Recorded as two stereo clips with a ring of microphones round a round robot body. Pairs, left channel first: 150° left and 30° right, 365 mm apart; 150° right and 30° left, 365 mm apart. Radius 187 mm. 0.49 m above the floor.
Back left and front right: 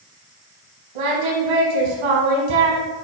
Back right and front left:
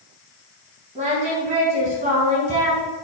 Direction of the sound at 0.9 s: 40° right.